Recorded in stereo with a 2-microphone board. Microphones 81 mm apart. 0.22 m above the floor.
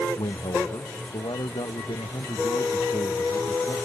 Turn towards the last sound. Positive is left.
turn(degrees=75)  # may be behind; listen again after turning